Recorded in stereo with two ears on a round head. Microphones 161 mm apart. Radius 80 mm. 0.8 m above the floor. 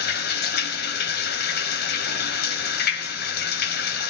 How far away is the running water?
About 2.5 m.